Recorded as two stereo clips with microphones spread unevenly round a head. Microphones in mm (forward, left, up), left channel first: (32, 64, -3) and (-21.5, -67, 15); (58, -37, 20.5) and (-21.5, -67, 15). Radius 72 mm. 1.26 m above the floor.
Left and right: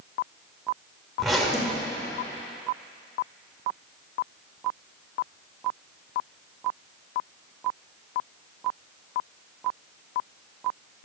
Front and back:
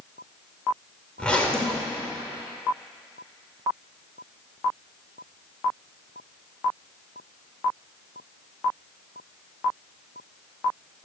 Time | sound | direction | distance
1.2 | a zipper | 35° right | 1.0 m